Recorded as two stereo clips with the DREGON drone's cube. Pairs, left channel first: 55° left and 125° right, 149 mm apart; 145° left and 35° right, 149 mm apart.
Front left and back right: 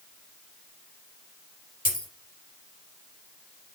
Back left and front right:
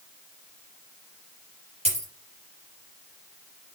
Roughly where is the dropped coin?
Ahead.